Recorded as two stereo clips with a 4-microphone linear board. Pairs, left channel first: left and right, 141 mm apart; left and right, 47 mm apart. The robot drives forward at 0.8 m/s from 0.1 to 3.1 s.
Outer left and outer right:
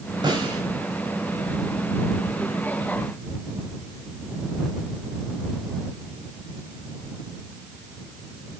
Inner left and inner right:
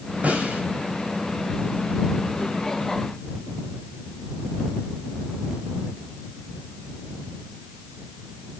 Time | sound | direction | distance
0.2 | a snare drum | 30° right (ahead or behind) | 5.5 m